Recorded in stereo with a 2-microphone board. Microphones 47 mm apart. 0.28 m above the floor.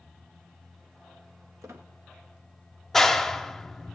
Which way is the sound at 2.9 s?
5° left (ahead or behind).